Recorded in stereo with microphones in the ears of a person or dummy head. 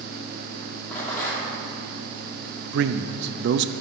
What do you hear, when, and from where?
0.9 s a rattle: 20° left (ahead or behind), 2.5 m
2.7 s a man speaking: 60° right (ahead or behind), 0.5 m